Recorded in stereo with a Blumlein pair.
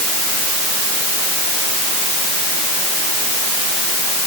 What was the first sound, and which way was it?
Only background noise.